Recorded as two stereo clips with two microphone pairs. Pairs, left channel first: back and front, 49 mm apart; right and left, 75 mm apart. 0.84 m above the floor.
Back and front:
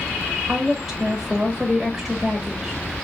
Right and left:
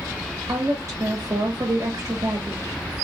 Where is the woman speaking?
80° left, 1.2 m.